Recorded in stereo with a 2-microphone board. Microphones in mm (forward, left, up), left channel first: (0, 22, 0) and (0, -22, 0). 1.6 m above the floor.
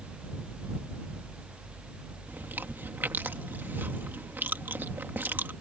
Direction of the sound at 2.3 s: 50° right (ahead or behind).